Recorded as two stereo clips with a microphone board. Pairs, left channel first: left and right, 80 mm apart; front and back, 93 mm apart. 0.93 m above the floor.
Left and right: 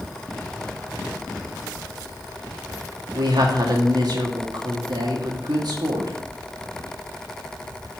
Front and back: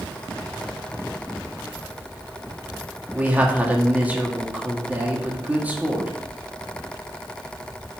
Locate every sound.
3.1 s a man speaking: 110° right, 1.9 m